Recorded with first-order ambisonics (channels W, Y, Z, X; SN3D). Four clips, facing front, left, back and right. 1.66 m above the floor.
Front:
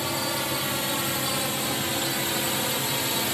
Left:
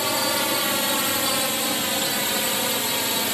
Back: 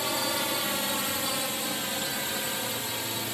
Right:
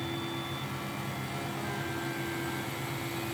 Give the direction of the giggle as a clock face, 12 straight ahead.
I don't hear a giggle.